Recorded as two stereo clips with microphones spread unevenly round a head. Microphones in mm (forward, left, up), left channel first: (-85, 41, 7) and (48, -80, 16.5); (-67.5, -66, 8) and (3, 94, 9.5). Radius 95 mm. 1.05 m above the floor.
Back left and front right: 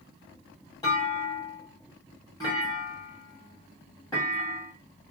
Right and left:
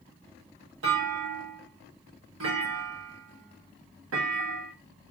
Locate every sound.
0.8 s a clunk: 65° left, 1.4 m